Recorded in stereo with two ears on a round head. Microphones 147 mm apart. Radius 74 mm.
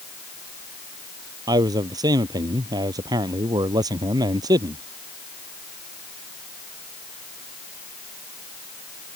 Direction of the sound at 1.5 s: 25° right (ahead or behind).